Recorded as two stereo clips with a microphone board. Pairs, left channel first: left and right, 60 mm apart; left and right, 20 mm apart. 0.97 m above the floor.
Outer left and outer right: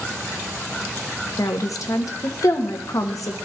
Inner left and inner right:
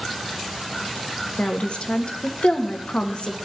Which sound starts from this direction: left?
A woman speaking, at 1.4 s.